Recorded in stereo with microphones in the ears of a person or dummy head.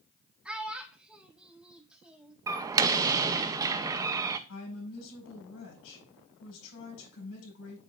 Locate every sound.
0.5 s a child speaking: 5° right (ahead or behind), 1.2 m
2.5 s a door slam: 15° right (ahead or behind), 0.6 m
4.5 s a woman speaking: 75° left (ahead or behind), 6.5 m